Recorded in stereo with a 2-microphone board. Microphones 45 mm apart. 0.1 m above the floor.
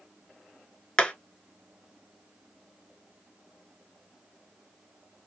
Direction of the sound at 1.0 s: 20° left (ahead or behind).